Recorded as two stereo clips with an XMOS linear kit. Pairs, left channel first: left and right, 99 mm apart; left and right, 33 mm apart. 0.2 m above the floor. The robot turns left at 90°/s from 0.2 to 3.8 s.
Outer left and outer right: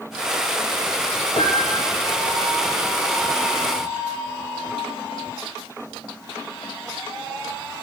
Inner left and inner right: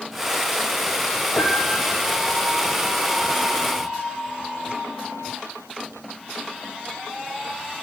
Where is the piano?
65° left, 4 m; by 2.2 s 10° right, 4 m.